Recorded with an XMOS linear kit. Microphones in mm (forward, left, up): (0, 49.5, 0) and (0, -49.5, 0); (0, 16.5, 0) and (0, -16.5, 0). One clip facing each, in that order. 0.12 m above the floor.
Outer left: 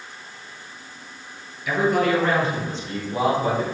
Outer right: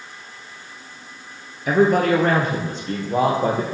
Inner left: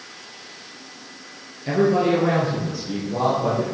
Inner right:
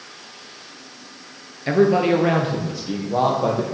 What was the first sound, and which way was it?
A man speaking, 45° right (ahead or behind).